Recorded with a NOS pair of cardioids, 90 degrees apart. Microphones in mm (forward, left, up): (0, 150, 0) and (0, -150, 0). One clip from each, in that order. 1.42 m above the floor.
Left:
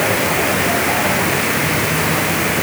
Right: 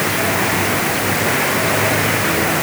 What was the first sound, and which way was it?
Only background noise.